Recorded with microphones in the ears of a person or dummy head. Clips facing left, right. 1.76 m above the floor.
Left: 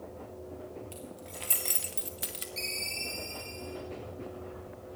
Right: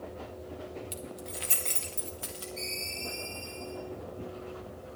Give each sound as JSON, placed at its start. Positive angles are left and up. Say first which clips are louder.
{"t": 0.9, "sound": "keys jangling", "louder": "right 3 dB", "side_deg": -20, "distance_m": 0.8}
{"t": 2.6, "sound": "a ringtone", "louder": "right 2 dB", "side_deg": 70, "distance_m": 5.0}